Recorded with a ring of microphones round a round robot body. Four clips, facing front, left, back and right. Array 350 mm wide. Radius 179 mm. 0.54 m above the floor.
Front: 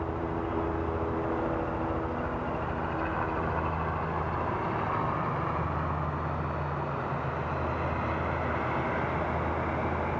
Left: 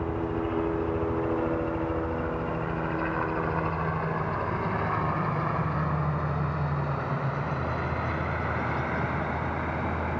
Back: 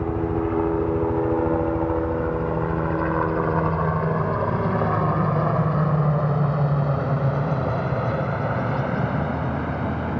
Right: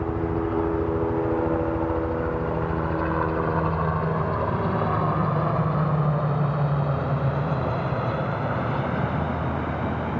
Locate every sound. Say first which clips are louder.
0.0 s a helicopter: right 4 dB, back 8 dB; 160° right; by 10.2 s 155° right